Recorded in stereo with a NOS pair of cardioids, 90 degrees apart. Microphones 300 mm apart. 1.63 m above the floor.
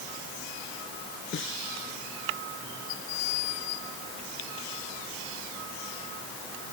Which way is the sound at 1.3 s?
40° left.